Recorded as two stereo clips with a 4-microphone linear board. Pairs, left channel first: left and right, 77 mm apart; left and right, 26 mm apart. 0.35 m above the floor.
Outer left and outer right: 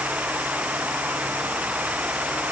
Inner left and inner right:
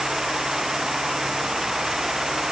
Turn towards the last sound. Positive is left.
No sound to turn to.